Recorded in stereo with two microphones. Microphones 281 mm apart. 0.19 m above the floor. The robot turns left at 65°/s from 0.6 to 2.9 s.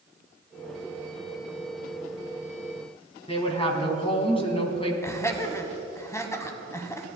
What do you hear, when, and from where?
3.3 s a woman speaking: 20° left (ahead or behind), 1.7 m
5.0 s laughter: 10° left (ahead or behind), 1.1 m